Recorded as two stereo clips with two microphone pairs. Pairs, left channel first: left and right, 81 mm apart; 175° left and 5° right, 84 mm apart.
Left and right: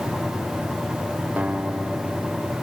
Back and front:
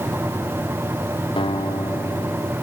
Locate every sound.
1.4 s a guitar: 165° right